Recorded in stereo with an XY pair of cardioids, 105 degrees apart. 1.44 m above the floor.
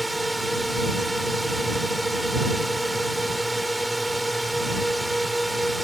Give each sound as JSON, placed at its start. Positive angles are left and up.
{"t": 0.0, "sound": "a drone", "azimuth_deg": -5}